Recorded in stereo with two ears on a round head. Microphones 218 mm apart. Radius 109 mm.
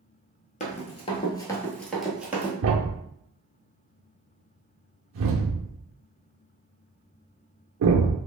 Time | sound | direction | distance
0.6 | running footsteps | 30° left (ahead or behind) | 1.1 m
2.6 | a thud | 55° right (ahead or behind) | 0.7 m